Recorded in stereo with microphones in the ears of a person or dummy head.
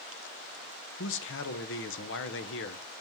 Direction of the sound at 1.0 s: 55° left (ahead or behind).